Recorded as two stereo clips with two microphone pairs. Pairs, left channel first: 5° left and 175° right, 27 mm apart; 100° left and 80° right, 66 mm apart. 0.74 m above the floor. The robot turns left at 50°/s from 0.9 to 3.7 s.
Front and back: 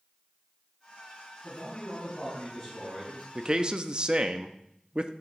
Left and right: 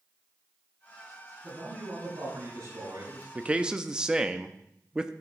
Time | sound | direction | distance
1.4 | a man speaking | 25° right | 5.5 m
3.4 | a man speaking | 130° right | 0.7 m